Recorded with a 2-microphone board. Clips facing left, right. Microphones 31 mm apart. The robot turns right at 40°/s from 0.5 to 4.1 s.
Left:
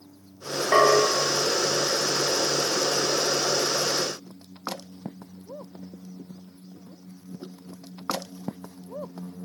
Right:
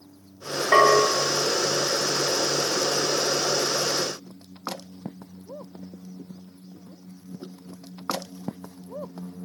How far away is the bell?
About 3 m.